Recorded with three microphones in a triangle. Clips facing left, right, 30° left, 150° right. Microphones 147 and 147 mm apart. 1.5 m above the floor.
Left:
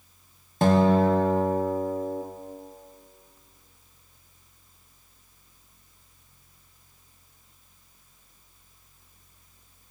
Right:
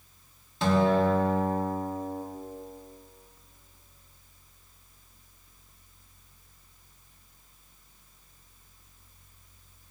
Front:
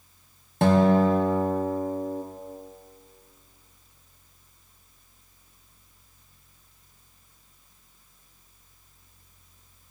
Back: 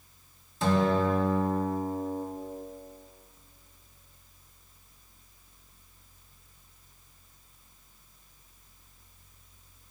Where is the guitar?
55° left, 1.1 m.